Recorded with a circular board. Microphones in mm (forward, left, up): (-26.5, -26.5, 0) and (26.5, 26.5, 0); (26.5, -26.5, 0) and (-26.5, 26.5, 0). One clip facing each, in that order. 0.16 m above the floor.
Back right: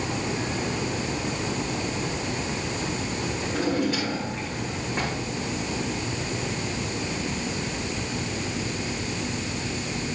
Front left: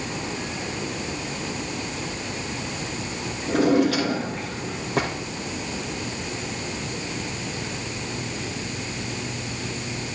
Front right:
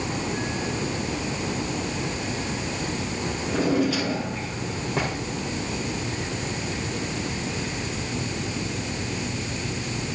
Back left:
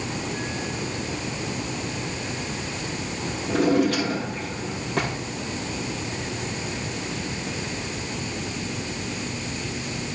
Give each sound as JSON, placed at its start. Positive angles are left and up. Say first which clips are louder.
{"t": 3.5, "sound": "a drawer", "louder": "front left 7 dB, back left 3 dB", "azimuth_deg": 40, "distance_m": 3.5}